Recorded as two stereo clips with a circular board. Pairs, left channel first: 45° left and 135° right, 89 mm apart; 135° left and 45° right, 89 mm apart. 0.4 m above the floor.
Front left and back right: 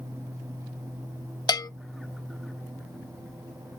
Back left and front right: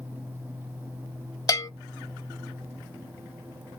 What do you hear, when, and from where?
1.5 s a bell: 85° left, 0.5 m